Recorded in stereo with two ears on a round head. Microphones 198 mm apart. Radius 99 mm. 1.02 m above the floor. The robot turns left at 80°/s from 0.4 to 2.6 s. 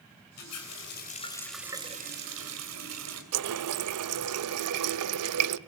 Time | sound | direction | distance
0.4 | a running tap | 90° left | 3.5 m
3.3 | a running tap | 80° right | 0.7 m